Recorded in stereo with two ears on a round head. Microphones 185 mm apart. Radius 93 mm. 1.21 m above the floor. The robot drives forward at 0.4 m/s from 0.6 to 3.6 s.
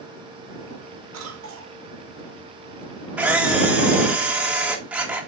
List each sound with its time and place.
1.1 s a cough: 70° right (ahead or behind), 3 m; by 1.8 s 75° right (ahead or behind), 3 m
3.2 s a camera shutter: 5° right (ahead or behind), 1.5 m